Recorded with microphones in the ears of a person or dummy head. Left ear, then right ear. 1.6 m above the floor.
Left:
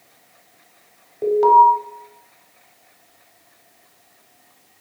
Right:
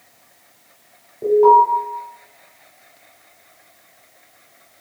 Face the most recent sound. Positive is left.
turn(degrees=50)  # may be behind; listen again after turning